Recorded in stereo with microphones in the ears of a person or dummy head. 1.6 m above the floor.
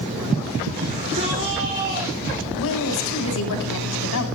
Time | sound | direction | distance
0.8 | a shout | 40° right (ahead or behind) | 5 m
2.6 | a woman speaking | 85° left | 8 m